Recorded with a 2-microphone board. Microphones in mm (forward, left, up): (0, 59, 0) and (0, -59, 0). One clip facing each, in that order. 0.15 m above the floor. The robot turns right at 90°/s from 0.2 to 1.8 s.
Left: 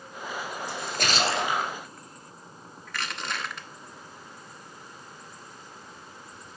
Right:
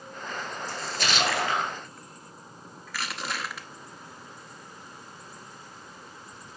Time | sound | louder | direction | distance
0.7 | a splash | left 1 dB | 90° left | 1.5 m
2.9 | crushing | even | 5° right (ahead or behind) | 0.9 m